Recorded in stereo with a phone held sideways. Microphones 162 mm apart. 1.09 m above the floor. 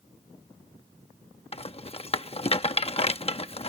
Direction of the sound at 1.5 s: 40° left (ahead or behind).